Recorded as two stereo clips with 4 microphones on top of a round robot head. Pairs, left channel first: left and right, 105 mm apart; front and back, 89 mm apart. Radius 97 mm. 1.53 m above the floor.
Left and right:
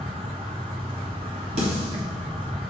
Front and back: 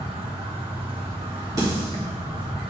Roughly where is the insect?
Behind right.